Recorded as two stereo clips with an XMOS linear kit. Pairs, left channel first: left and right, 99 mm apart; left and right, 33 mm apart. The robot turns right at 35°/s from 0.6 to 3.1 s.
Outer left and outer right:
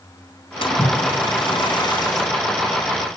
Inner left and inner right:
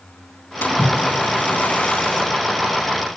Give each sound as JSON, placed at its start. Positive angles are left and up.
{"t": 0.6, "sound": "a splash", "azimuth_deg": 80, "distance_m": 3.5}